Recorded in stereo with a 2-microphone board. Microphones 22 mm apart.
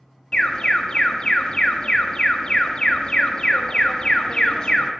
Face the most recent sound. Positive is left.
turn(degrees=45)  # may be behind; listen again after turning